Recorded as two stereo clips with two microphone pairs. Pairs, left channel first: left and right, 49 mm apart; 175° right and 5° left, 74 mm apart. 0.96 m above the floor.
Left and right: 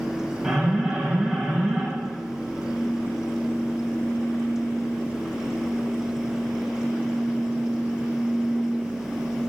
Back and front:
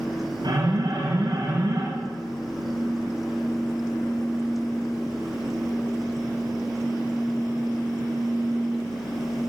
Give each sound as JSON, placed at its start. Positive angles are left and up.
{"t": 0.4, "sound": "an alarm", "azimuth_deg": -15, "distance_m": 9.5}